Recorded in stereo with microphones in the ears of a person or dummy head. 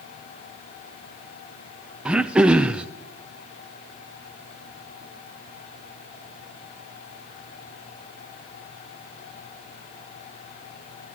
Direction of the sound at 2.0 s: 5° right (ahead or behind).